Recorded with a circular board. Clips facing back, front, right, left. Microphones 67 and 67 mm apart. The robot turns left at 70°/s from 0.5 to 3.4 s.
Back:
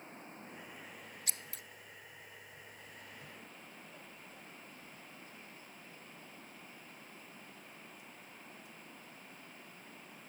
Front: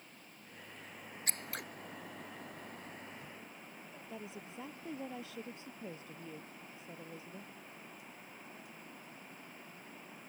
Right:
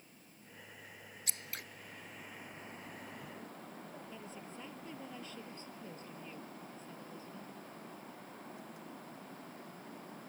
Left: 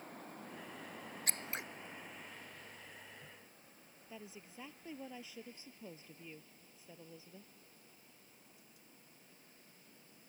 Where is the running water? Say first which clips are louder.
Back 6 dB, left 10 dB; 120° left; by 10.3 s 85° right.